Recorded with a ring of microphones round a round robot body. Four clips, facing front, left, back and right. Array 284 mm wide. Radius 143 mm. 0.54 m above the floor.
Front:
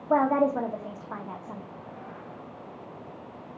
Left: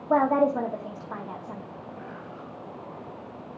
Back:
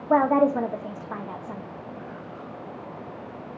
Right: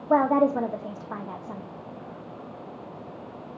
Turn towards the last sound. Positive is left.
turn(degrees=-145)